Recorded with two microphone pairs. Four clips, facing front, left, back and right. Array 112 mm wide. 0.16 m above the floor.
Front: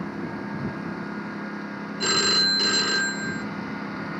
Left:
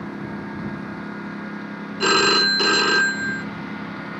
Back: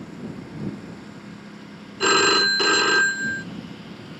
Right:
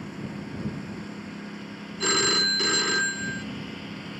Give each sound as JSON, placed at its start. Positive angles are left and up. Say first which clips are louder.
{"t": 0.0, "sound": "a lawn mower", "louder": "left 6 dB, front 4 dB", "azimuth_deg": 45}
{"t": 2.0, "sound": "a phone ringing", "louder": "left 8 dB, back 8 dB", "azimuth_deg": 135}